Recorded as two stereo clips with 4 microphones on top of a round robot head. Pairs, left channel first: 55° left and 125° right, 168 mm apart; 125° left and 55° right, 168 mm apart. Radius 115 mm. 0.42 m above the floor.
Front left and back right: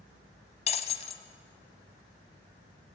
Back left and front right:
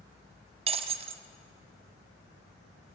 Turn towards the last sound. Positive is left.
turn(degrees=0)